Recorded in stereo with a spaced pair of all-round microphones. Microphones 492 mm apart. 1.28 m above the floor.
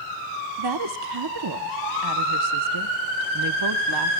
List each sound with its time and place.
0.6 s a woman speaking: 50° right (ahead or behind), 1.1 m